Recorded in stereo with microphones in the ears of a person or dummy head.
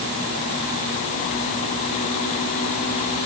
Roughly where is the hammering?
No hammering in this recording.